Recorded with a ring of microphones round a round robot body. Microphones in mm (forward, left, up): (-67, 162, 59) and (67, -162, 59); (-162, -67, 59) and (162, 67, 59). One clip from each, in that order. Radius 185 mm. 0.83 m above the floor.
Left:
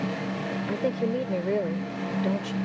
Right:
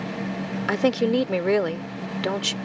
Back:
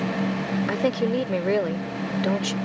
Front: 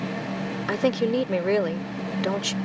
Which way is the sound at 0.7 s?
55° right.